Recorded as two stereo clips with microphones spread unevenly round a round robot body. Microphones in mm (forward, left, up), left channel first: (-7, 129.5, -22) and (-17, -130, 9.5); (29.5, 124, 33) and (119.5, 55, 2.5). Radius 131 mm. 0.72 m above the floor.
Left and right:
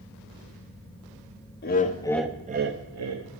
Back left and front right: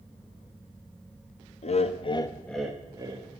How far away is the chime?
I don't hear a chime.